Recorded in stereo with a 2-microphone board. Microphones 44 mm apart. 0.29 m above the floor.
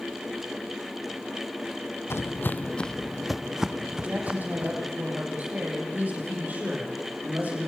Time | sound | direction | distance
2.1 | footsteps | 70° left (ahead or behind) | 0.6 m
3.9 | a woman speaking | 40° right (ahead or behind) | 8.5 m